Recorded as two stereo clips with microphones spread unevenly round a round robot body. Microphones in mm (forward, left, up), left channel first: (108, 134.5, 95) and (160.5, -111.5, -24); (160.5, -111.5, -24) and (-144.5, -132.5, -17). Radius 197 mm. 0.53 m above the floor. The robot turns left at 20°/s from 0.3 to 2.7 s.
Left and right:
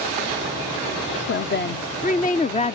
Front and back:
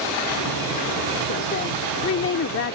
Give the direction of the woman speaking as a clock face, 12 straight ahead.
11 o'clock.